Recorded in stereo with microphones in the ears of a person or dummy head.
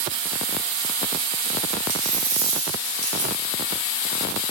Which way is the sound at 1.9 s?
50° right (ahead or behind).